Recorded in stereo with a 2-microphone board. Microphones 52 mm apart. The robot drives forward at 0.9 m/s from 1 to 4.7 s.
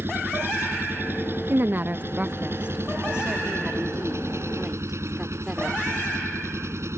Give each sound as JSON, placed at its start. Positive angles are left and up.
{"t": 0.0, "sound": "an engine running", "side_deg": -45}
{"t": 1.5, "sound": "a woman speaking", "side_deg": -45}